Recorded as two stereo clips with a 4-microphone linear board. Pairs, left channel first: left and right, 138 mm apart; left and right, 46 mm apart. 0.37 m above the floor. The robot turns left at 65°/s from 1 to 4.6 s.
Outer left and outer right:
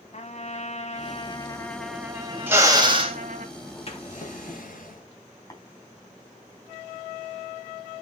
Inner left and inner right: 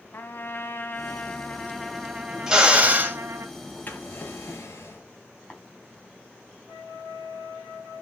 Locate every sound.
0.1 s a trumpet: 55° left, 1.3 m; by 3.5 s 105° right, 1.3 m
2.5 s a drill: 20° right, 2.5 m; by 3.2 s 65° right, 2.5 m
3.9 s a drawer: 135° left, 4 m; by 5.1 s 90° left, 4 m
5.5 s tapping: 25° left (ahead or behind), 3 m